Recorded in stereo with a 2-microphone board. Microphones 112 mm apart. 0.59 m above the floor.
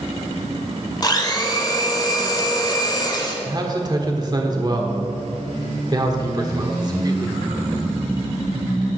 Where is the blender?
35° left (ahead or behind), 1.4 m.